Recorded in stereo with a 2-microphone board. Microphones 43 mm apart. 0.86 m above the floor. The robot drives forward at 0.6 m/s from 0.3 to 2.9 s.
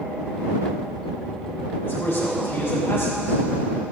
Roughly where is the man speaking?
Left.